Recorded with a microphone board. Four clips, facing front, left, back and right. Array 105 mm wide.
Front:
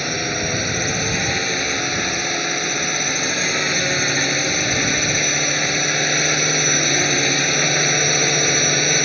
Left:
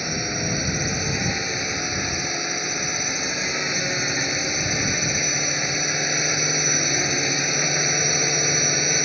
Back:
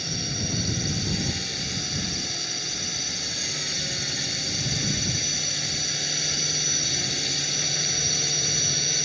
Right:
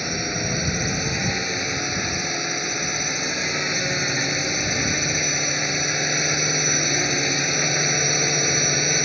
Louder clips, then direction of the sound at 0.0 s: Even, front 10 dB; straight ahead.